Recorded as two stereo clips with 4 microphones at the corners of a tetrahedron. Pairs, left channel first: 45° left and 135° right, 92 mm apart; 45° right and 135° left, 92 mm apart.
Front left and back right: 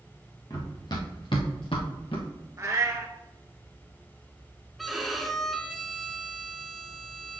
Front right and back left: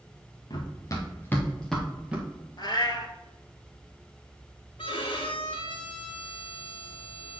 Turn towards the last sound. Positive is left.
turn(degrees=-45)